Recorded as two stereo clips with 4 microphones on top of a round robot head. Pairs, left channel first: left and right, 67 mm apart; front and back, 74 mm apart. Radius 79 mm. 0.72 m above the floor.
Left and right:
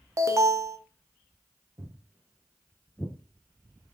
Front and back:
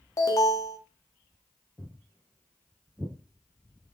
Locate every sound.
0.2 s an alarm: 45° right, 0.7 m
1.8 s footsteps: 65° right, 0.9 m; by 4.0 s 140° left, 0.9 m